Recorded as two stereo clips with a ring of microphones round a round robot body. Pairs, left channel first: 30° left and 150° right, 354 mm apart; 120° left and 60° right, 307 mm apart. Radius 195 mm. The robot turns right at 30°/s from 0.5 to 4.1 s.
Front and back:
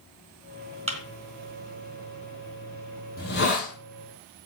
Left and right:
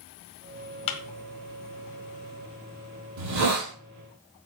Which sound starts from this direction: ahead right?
A hiss, at 3.2 s.